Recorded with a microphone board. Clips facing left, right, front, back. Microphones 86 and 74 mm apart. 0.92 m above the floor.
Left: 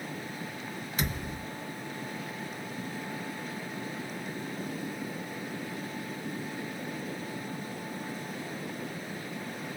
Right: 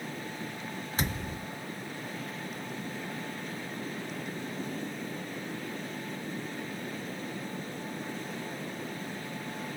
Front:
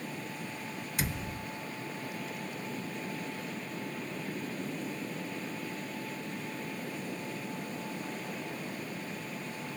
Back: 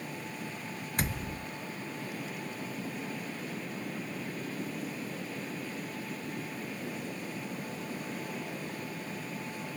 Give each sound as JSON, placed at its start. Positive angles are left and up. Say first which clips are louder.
{"t": 1.0, "sound": "a thud", "louder": "even, back 2 dB", "azimuth_deg": -140, "distance_m": 1.3}